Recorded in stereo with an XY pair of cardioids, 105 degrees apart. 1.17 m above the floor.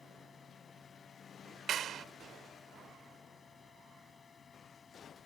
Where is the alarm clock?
I don't hear an alarm clock.